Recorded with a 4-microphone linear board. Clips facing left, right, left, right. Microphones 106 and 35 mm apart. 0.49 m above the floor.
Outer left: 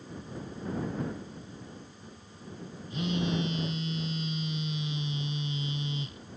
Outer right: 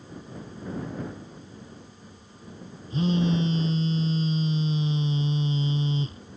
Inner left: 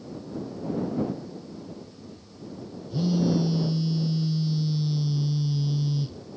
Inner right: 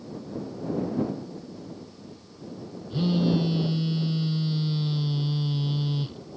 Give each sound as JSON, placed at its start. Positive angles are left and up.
{"t": 2.9, "sound": "a phone buzzing", "side_deg": -35}